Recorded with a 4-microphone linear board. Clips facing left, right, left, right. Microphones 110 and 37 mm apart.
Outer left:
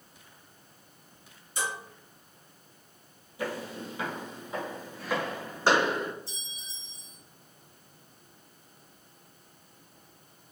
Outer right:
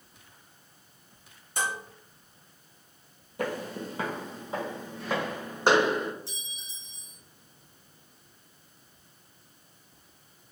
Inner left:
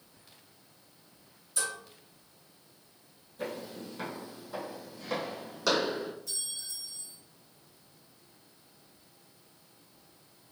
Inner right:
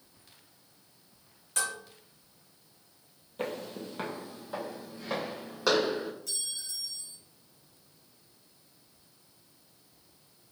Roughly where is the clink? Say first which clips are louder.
Outer right 1 dB, inner right 2 dB; right.